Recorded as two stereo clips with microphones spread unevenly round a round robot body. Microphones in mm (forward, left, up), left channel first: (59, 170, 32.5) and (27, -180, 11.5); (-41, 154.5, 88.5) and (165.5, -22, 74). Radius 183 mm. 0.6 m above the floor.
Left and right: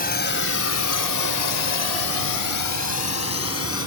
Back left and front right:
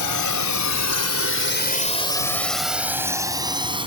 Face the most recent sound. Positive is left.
turn(degrees=30)